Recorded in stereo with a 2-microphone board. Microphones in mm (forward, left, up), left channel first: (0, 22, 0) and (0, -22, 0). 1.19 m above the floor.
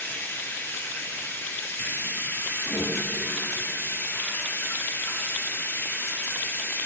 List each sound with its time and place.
0.0 s running water: 60° left (ahead or behind), 1.9 m
2.6 s a whoosh: 65° left (ahead or behind), 1.9 m